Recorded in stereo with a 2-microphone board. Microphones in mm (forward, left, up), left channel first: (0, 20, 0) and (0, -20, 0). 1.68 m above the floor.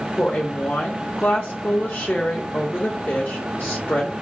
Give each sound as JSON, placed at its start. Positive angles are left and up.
{"t": 0.2, "sound": "a woman speaking", "side_deg": 45, "distance_m": 0.8}